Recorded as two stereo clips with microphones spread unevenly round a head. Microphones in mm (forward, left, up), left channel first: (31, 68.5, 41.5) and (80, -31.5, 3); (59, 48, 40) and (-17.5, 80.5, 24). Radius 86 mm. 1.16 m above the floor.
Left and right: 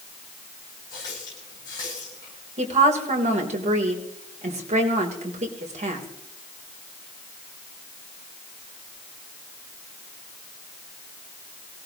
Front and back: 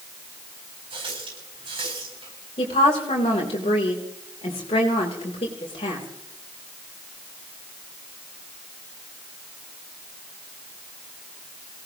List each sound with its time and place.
0.9 s a running tap: 175° right, 9.5 m
2.6 s a woman speaking: 50° right, 3.5 m